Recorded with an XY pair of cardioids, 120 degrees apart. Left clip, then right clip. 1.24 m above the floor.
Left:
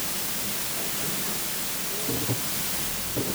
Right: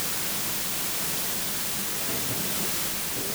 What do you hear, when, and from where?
Only background noise.